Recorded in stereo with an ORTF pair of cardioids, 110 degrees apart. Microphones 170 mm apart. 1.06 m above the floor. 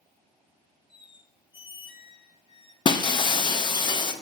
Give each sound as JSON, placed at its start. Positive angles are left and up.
{"t": 0.9, "sound": "a squeak", "azimuth_deg": 25, "distance_m": 0.8}
{"t": 2.9, "sound": "breaking glass", "azimuth_deg": 25, "distance_m": 0.6}